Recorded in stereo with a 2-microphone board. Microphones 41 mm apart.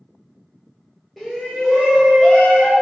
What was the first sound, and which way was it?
A shout, centre (ahead or behind).